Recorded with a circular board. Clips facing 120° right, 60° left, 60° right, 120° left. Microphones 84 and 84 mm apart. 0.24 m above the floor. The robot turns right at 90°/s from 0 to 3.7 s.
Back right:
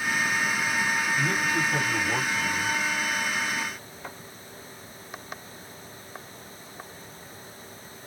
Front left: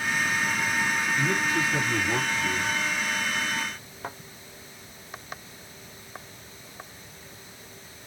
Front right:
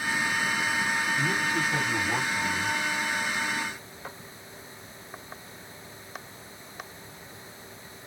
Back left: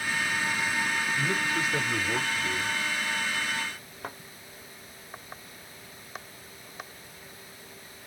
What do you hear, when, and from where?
1.2 s a man speaking: 125° right, 2 m; by 2.8 s 20° left, 2 m
4.0 s a thud: 100° left, 1.6 m